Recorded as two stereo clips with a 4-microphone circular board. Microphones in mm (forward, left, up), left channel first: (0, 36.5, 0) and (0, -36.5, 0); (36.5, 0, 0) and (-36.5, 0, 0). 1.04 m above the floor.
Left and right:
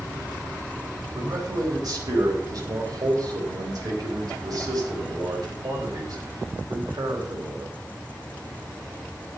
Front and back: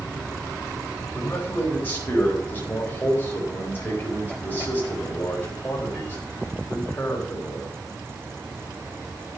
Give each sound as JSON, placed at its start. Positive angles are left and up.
{"t": 1.1, "sound": "a man speaking", "azimuth_deg": -65, "distance_m": 4.0}